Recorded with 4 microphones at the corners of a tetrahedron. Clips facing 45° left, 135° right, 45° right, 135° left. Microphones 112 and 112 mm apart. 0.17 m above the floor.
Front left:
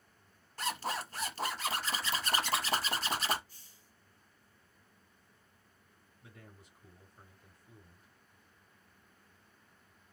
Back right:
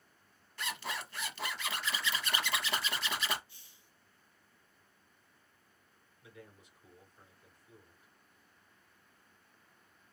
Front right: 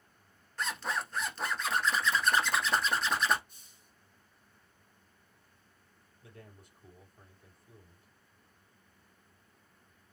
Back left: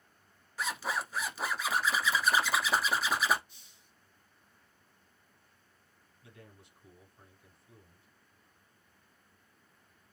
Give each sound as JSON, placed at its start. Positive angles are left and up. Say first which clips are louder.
{"t": 0.6, "sound": "a zipper", "louder": "front left 4 dB, even", "azimuth_deg": 55, "distance_m": 1.0}
{"t": 3.5, "sound": "a hiss", "louder": "front left 1 dB, front right 1 dB", "azimuth_deg": -5, "distance_m": 1.1}
{"t": 6.2, "sound": "a man speaking", "louder": "back right 2 dB, front right 2 dB", "azimuth_deg": -5, "distance_m": 2.5}